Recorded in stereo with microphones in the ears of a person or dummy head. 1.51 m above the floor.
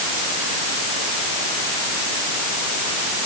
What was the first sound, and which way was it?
Only background noise.